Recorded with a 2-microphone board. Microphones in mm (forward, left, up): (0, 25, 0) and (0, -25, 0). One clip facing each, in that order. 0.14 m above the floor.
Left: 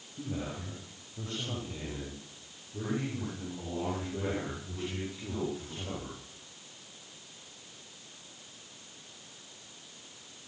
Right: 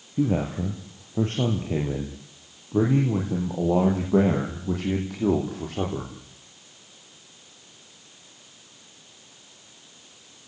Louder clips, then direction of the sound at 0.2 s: Right 13 dB; 60° right (ahead or behind).